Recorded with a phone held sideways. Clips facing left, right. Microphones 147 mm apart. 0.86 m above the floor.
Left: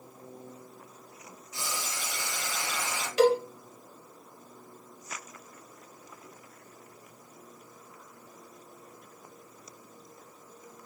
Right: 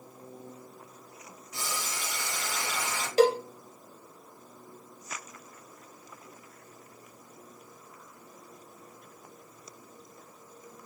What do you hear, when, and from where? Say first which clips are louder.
1.5 s boiling: right 1 dB; 55° right (ahead or behind), 1.3 m
3.2 s a cowbell: even; 35° right (ahead or behind), 0.7 m